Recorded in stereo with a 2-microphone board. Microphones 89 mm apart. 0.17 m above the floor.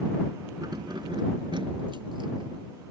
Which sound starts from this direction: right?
Keys jangling, at 0.6 s.